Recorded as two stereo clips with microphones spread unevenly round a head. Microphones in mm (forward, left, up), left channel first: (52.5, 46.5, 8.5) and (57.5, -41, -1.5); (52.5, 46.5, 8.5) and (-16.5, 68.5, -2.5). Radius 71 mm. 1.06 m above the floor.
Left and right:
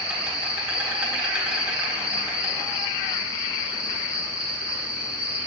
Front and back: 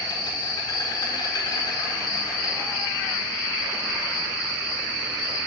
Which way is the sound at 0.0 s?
15° right.